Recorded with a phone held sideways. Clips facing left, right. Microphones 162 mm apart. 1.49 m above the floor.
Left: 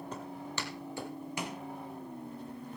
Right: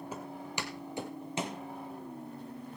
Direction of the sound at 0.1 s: 10° right (ahead or behind).